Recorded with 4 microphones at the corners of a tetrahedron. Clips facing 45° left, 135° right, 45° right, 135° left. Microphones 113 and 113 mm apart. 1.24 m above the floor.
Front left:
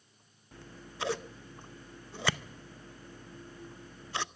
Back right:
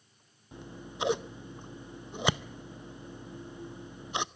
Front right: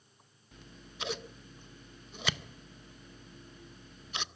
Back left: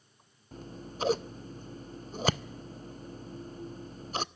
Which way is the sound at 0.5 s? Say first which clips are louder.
Back right 5 dB, back left 10 dB; 160° left.